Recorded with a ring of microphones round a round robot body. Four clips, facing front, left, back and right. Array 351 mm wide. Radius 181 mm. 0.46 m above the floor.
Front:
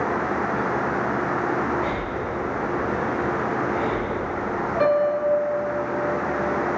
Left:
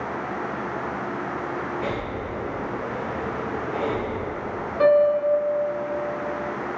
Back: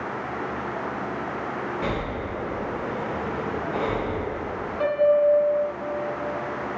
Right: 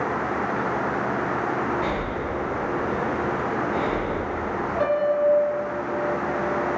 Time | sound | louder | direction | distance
1.8 | breathing | right 2 dB, front 2 dB | 170° right | 3 m
4.8 | a piano | left 4 dB, back 2 dB | 50° left | 2.0 m